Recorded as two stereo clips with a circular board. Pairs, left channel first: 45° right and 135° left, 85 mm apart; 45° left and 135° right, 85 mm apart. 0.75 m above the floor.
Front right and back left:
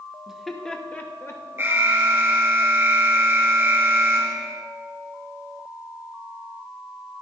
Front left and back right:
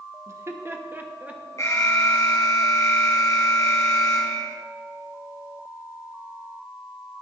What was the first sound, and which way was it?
Laughter, 145° right.